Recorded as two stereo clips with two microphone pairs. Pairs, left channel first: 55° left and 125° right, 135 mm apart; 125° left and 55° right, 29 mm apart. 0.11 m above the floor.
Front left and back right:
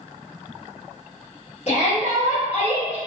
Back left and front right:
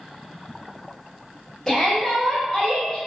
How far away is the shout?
About 1.8 m.